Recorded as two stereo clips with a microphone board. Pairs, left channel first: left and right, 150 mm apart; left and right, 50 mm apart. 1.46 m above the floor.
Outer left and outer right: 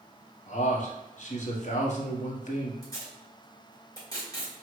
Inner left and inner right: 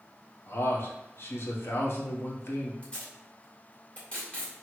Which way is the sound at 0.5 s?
55° left (ahead or behind).